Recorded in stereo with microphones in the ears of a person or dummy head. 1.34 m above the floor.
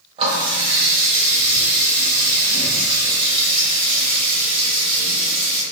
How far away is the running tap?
About 1.1 m.